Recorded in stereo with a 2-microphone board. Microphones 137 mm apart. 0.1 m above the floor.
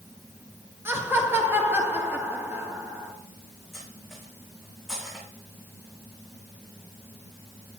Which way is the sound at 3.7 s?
Centre (ahead or behind).